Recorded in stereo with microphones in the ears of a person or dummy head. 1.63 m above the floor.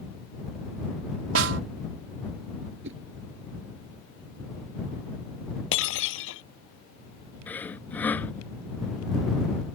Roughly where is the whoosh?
Right.